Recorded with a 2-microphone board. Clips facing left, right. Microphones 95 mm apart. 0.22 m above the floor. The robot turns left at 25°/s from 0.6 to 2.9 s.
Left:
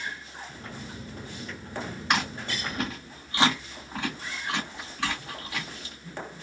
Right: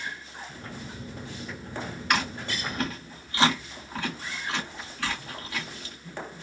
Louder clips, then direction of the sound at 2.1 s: Even; 25° left (ahead or behind).